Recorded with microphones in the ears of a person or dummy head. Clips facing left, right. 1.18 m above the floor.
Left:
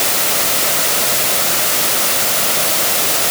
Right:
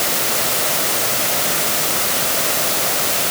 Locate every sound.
Only background noise.